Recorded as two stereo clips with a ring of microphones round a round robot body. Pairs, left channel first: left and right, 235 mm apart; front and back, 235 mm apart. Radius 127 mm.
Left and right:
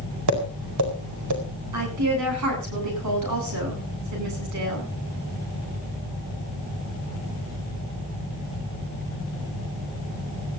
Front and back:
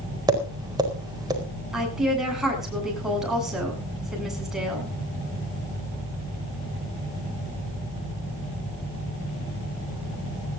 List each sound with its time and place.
0.3 s tapping: 105° right, 4.5 m
1.7 s a woman speaking: 90° right, 10 m